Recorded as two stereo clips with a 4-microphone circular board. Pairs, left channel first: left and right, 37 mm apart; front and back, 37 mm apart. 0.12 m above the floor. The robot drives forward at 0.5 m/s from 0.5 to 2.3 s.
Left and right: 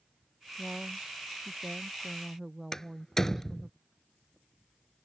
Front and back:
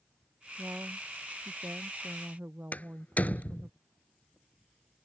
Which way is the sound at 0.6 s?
170° right.